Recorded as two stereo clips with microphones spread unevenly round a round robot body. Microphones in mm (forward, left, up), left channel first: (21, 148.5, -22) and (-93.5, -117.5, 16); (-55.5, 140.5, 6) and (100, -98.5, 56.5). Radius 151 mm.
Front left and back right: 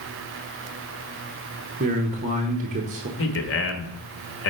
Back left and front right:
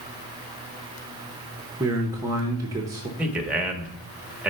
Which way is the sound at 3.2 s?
35° left.